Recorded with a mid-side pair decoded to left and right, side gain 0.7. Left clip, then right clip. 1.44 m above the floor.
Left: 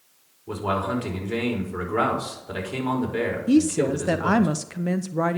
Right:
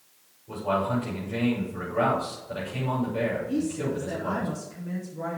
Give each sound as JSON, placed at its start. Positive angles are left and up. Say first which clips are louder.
{"t": 0.5, "sound": "a man speaking", "louder": "left 1 dB", "azimuth_deg": 70, "distance_m": 4.5}
{"t": 3.5, "sound": "a woman speaking", "louder": "left 8 dB", "azimuth_deg": 60, "distance_m": 0.6}